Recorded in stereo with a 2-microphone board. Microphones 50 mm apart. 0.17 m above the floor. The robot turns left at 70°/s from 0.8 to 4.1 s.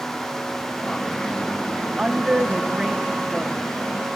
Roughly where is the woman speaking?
Centre.